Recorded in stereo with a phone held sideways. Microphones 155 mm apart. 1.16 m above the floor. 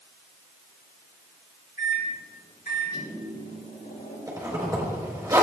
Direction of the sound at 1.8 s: 80° left.